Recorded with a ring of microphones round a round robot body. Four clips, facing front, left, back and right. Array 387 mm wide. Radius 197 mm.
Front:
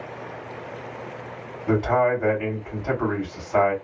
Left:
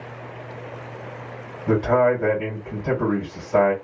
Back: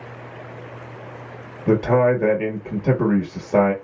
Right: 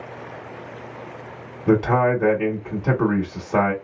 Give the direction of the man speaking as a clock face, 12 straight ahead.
5 o'clock.